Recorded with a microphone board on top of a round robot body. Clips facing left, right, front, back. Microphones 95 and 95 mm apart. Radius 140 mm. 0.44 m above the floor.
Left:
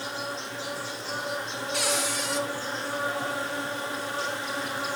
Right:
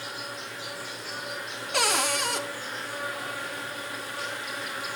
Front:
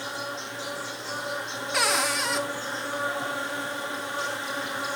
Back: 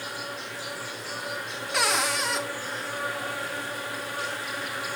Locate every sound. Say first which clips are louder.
0.0 s an insect: left 4 dB, front 2 dB; 50° left, 2.5 m
1.7 s a cupboard door: right 4 dB, even; 90° right, 1.4 m